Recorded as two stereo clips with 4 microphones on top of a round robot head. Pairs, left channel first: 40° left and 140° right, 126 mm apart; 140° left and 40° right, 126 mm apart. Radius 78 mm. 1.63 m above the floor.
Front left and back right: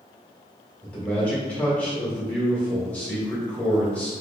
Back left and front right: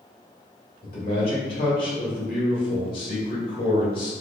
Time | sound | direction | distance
0.8 | a man speaking | 120° left | 1.8 m